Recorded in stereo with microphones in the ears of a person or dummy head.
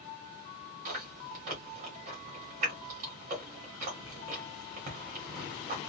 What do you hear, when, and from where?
0.8 s chewing: 45° right (ahead or behind), 1.8 m